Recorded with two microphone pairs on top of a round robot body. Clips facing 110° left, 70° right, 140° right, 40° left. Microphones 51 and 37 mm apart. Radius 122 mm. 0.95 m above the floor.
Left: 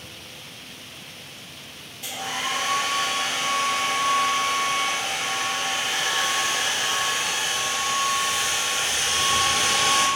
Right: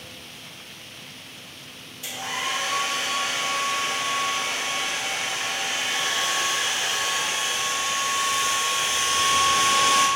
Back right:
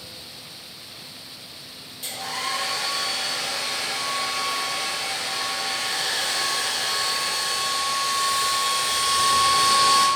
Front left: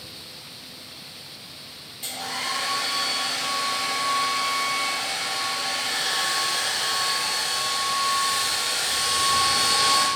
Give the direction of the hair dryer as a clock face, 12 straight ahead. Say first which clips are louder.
Even, back right 1 dB; 8 o'clock.